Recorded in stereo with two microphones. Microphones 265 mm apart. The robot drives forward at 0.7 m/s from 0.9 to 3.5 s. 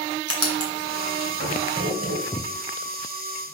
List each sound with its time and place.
0.3 s writing: 60° right (ahead or behind), 2.5 m; by 2.2 s 55° right (ahead or behind), 2.5 m
2.3 s footsteps: 15° left (ahead or behind), 0.6 m